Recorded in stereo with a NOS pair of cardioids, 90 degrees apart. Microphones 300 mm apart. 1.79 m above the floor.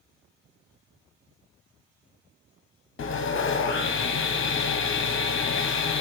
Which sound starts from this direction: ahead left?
Sawing, at 3.0 s.